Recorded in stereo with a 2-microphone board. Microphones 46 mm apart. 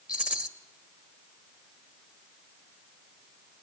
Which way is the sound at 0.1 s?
25° right (ahead or behind).